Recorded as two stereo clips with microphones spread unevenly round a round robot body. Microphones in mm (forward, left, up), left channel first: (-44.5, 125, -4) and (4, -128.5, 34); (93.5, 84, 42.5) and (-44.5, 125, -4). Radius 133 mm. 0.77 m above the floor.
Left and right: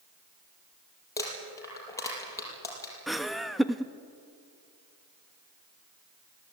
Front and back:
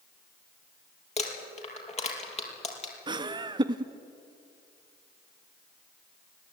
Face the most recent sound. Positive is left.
turn(degrees=-175)